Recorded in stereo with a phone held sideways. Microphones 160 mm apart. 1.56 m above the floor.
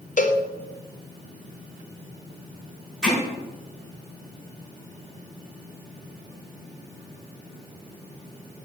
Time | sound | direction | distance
0.2 | a cowbell | 55° left (ahead or behind) | 0.7 m
3.0 | hammering | 5° right (ahead or behind) | 4 m